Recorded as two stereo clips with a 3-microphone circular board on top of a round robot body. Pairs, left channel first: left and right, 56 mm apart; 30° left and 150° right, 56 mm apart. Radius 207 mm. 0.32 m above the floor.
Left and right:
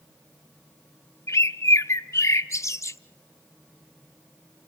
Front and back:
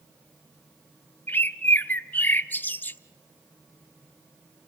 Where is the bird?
80° left, 0.7 m.